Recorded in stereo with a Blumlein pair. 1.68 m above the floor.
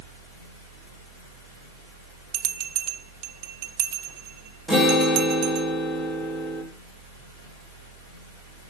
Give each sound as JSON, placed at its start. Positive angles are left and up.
{"t": 0.0, "sound": "a fan", "azimuth_deg": -60, "distance_m": 8.0}
{"t": 2.3, "sound": "a bell", "azimuth_deg": -40, "distance_m": 0.9}
{"t": 4.7, "sound": "a guitar", "azimuth_deg": -20, "distance_m": 5.5}